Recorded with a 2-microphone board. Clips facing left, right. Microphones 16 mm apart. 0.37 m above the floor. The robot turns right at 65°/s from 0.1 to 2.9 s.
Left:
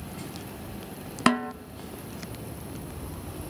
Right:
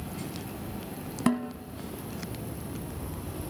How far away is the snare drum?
About 0.7 m.